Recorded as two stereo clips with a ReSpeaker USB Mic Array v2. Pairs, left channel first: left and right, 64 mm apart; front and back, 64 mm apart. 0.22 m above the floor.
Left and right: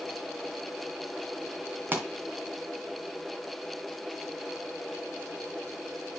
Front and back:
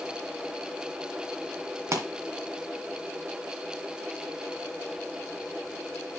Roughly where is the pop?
Behind right.